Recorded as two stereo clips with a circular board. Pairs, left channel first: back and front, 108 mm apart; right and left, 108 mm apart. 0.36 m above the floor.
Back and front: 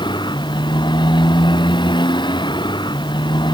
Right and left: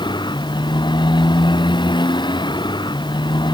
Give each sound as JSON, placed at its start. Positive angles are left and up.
{"t": 0.0, "sound": "a motorcycle", "azimuth_deg": -135}